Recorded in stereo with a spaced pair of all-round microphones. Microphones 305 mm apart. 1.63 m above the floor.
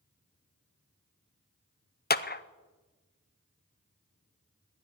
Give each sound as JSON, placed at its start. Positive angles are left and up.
{"t": 2.1, "sound": "a clap", "side_deg": 30, "distance_m": 0.6}